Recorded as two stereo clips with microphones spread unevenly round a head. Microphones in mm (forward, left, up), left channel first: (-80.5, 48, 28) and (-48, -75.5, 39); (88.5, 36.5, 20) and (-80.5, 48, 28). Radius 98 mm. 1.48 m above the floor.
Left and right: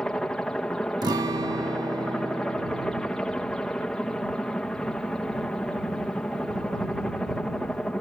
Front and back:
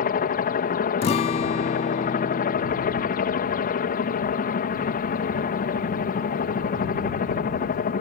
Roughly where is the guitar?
Ahead right.